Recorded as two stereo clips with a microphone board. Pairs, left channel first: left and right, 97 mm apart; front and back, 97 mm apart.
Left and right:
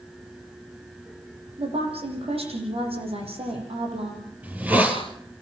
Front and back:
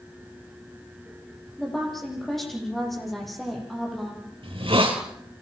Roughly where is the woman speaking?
Right.